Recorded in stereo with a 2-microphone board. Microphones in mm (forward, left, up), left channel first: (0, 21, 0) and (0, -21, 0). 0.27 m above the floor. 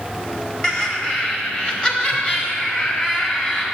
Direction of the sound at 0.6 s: 20° left (ahead or behind).